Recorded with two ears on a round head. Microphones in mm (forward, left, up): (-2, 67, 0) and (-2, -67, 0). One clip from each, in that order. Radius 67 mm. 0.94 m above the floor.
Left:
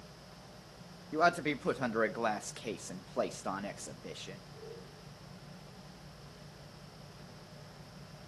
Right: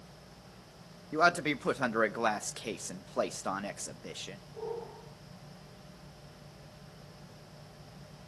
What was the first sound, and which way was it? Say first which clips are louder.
A man speaking: right 2 dB; 15° right (ahead or behind).